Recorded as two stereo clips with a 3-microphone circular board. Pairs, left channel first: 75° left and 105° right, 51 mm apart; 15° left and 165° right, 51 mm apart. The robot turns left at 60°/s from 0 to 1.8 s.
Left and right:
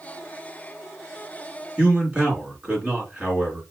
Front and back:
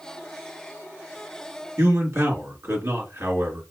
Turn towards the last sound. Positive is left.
turn(degrees=-175)